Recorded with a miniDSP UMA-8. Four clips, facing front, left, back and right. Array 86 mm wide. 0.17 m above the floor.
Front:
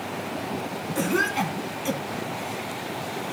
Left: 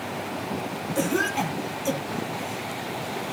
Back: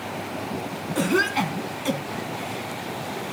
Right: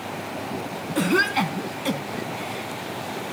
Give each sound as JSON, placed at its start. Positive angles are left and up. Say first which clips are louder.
{"t": 0.9, "sound": "a cough", "louder": "right 4 dB, back 2 dB", "azimuth_deg": -115, "distance_m": 1.3}